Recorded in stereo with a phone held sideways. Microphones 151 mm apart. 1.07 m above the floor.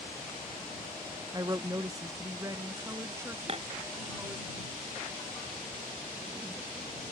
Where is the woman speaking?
25° right (ahead or behind); by 4.5 s 15° right (ahead or behind).